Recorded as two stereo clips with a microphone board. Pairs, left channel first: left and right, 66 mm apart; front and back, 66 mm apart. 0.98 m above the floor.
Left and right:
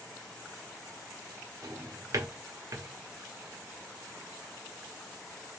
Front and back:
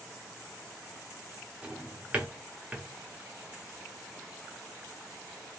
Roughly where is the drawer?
Behind right.